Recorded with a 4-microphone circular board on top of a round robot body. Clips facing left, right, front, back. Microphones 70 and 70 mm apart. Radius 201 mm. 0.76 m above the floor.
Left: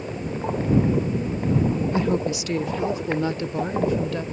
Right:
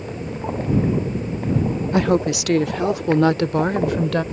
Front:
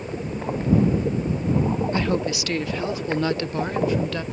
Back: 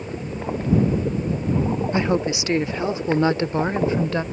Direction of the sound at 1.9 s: 110° right.